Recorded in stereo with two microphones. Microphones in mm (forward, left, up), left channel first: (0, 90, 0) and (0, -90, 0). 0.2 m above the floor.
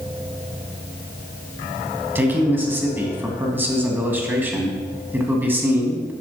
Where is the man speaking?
10° right (ahead or behind), 1.7 m.